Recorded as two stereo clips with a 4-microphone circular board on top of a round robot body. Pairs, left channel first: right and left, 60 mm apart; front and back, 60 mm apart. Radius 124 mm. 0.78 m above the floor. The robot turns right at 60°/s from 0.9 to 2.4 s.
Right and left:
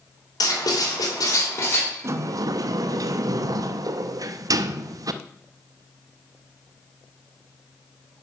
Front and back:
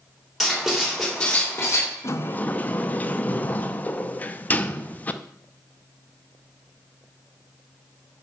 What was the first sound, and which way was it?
Writing, 90° right.